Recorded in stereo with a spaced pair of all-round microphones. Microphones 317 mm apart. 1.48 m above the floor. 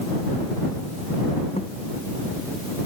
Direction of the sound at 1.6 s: 20° left (ahead or behind).